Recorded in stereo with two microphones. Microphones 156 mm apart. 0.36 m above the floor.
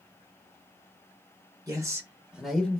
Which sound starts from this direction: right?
A man speaking, at 1.7 s.